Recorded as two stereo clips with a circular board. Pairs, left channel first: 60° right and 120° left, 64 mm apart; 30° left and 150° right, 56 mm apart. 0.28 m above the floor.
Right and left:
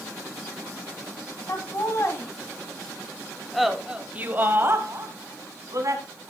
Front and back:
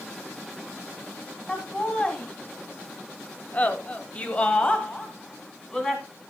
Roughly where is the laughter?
Ahead right.